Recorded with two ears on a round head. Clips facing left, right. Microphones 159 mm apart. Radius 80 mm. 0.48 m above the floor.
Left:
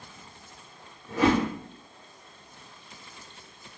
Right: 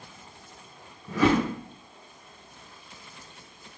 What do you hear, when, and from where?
1.1 s a whoosh: 70° right (ahead or behind), 1.3 m